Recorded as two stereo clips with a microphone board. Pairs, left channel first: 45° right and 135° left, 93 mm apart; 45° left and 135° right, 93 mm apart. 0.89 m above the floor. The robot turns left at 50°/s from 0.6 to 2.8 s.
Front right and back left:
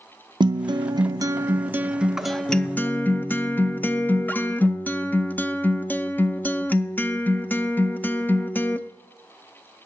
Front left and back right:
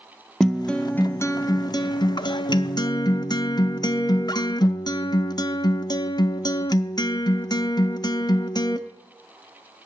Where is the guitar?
130° left, 0.5 m; by 8.8 s 20° left, 0.5 m.